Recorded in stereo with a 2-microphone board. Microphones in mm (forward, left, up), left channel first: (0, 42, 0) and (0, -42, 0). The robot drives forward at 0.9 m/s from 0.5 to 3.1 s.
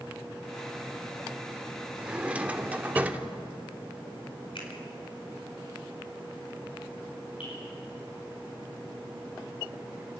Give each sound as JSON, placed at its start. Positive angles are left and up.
{"t": 2.0, "sound": "a drawer", "side_deg": -15, "distance_m": 1.4}
{"t": 4.5, "sound": "a finger snap", "side_deg": 75, "distance_m": 4.0}
{"t": 7.4, "sound": "dripping", "side_deg": 80, "distance_m": 9.0}